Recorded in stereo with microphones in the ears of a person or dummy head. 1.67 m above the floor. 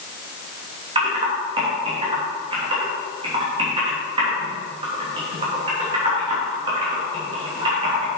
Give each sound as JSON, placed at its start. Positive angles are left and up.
{"t": 0.9, "sound": "typing on a keyboard", "side_deg": -30, "distance_m": 3.0}